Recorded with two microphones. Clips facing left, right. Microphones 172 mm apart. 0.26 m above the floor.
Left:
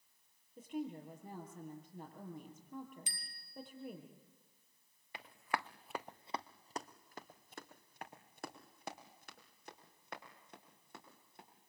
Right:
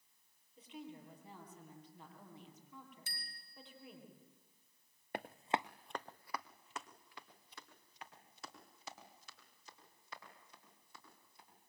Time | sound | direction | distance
0.6 | a woman speaking | 45° left (ahead or behind) | 7 m
3.1 | a bicycle bell | 15° left (ahead or behind) | 3 m
5.1 | running footsteps | 55° right (ahead or behind) | 1.0 m